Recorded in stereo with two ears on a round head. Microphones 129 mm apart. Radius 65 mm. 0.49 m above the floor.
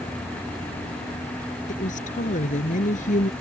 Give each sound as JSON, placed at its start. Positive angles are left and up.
{"t": 1.7, "sound": "a woman speaking", "side_deg": 60}